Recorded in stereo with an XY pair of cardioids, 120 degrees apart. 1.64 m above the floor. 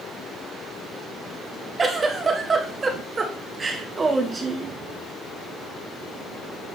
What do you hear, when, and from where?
1.8 s a giggle: 30° right, 1.6 m